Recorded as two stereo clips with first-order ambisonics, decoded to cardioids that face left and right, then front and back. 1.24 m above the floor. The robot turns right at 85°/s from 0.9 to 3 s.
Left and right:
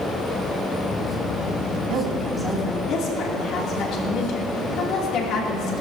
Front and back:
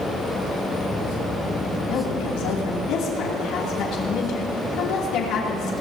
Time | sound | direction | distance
1.9 | a woman speaking | 50° right | 2.5 m